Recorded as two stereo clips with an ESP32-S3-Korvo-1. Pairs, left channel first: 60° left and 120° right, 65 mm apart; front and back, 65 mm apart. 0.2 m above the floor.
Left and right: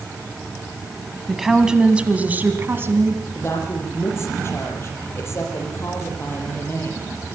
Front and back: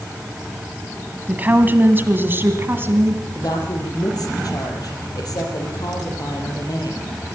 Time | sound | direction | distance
1.3 | a woman speaking | 155° left | 1.7 m
3.4 | a woman speaking | 10° left | 5.5 m